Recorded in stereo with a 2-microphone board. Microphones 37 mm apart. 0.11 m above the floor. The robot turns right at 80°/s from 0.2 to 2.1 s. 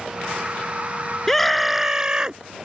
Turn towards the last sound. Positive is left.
turn(degrees=-20)  # may be behind; listen again after turning